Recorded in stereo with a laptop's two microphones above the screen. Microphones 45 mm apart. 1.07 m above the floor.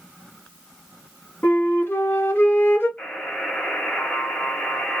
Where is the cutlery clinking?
No cutlery clinking in this recording.